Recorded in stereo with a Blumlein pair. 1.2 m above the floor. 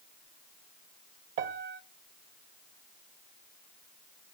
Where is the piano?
50° right, 0.8 m.